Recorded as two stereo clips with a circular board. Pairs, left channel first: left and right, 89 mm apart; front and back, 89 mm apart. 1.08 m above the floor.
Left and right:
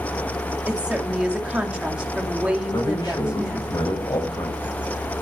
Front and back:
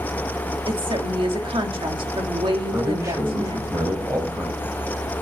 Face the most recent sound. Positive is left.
turn(degrees=125)